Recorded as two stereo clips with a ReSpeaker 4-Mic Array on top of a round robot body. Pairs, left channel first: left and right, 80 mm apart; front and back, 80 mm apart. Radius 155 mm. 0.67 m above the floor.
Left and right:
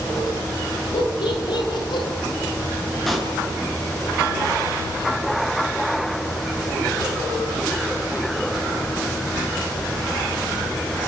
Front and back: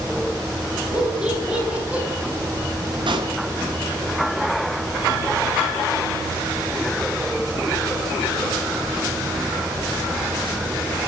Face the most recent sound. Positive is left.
turn(degrees=180)